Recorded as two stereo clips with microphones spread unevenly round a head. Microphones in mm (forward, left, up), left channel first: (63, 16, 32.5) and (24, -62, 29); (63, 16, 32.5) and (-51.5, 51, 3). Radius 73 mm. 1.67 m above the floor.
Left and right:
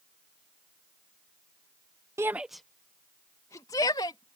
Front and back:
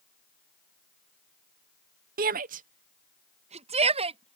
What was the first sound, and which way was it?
A shout, 175° left.